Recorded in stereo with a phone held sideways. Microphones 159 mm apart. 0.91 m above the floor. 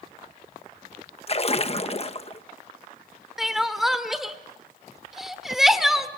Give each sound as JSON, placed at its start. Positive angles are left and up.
{"t": 1.3, "sound": "a splash", "side_deg": 40, "distance_m": 1.2}
{"t": 3.4, "sound": "crying", "side_deg": 0, "distance_m": 1.4}